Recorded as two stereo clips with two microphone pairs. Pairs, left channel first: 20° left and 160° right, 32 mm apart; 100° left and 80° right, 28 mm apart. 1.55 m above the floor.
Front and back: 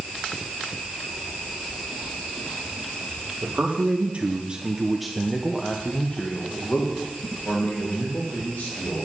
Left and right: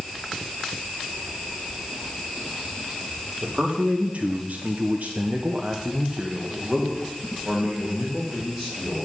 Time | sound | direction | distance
3.4 | a man speaking | 125° right | 2 m